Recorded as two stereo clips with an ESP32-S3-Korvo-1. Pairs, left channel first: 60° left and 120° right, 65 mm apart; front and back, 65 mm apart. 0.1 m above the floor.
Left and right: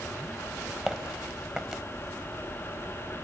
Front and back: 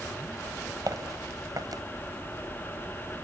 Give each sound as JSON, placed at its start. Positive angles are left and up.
{"t": 0.9, "sound": "footsteps", "azimuth_deg": 150, "distance_m": 2.5}